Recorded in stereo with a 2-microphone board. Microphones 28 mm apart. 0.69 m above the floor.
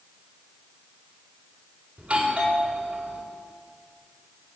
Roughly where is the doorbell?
Right.